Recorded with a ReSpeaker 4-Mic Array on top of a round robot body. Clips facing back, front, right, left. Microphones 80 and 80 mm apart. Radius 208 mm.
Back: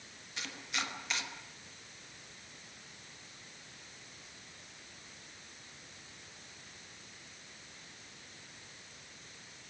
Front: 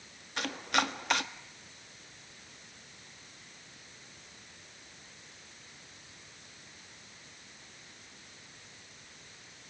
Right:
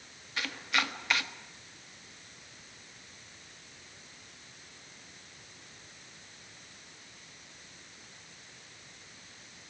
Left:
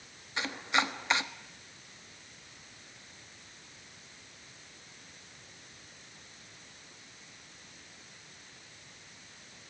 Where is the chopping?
25° left, 1.6 m.